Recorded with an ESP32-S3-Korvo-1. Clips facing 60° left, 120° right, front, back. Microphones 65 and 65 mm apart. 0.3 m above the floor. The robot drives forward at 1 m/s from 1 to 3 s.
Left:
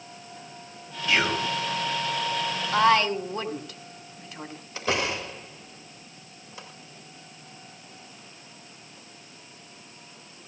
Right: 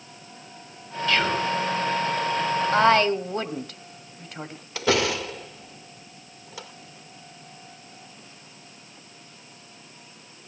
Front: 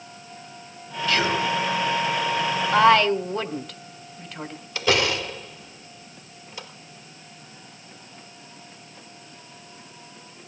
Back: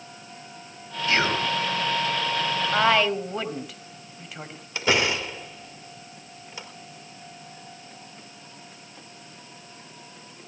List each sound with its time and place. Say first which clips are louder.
1.1 s whispering: right 1 dB, front 1 dB; 130° left, 1.4 m; by 1.5 s 145° left, 1.6 m
2.7 s a woman speaking: right 1 dB, front 5 dB; 90° right, 1.9 m; by 4.7 s 100° right, 1.9 m
4.8 s a door slam: right 5 dB, front 1 dB; 105° right, 4.5 m